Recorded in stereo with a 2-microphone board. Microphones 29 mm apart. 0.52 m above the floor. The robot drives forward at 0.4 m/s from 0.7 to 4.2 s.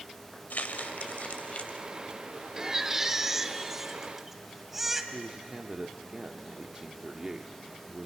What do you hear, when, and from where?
0.5 s crumpling: 70° left (ahead or behind), 0.8 m; by 1.9 s 45° left (ahead or behind), 1.1 m
2.6 s a baby crying: 20° right (ahead or behind), 0.7 m; by 5.0 s 10° right (ahead or behind), 1.3 m
5.1 s a man speaking: 25° right (ahead or behind), 0.9 m